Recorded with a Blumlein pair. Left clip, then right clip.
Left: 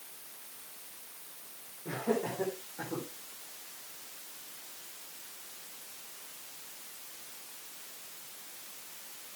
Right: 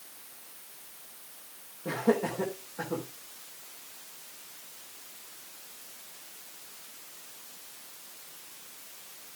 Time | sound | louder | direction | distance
1.9 | laughter | right 5 dB | 70° right | 3.5 m